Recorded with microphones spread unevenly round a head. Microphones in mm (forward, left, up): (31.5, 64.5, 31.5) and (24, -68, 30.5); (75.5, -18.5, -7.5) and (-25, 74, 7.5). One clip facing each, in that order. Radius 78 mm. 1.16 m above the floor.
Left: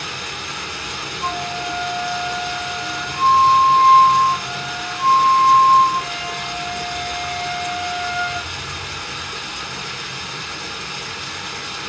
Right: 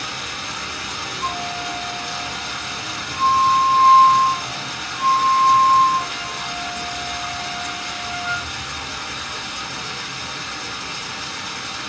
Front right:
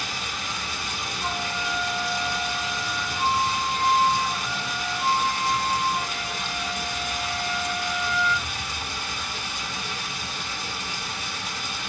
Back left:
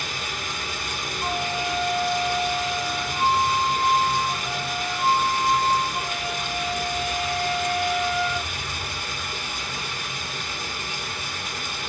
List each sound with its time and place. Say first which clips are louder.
0.0 s running water: even, back left 1 dB; 125° left, 1.9 m
1.2 s a flute: left 2 dB, back left 4 dB; 70° left, 1.2 m